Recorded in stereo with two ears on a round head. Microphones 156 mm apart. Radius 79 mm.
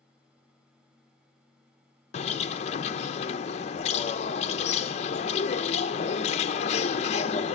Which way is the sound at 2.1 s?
35° left (ahead or behind).